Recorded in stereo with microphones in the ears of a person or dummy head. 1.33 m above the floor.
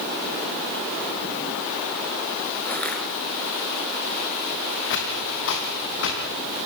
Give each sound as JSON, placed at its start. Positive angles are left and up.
{"t": 2.6, "sound": "crushing", "side_deg": 15, "distance_m": 6.0}
{"t": 4.9, "sound": "footsteps", "side_deg": 65, "distance_m": 6.5}